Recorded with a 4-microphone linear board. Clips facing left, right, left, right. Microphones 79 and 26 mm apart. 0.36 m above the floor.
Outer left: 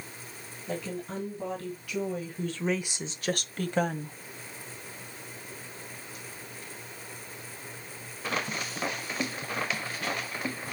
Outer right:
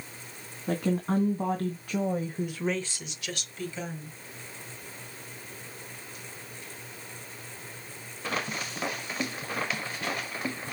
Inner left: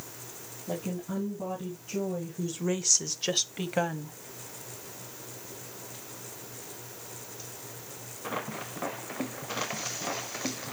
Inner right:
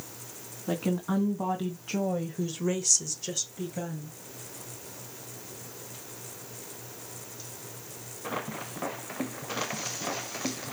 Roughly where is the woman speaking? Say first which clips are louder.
Outer right 7 dB, inner right 5 dB; right.